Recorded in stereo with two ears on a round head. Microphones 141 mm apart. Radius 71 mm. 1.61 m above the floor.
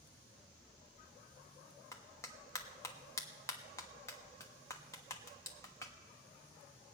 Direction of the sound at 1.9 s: 20° left (ahead or behind).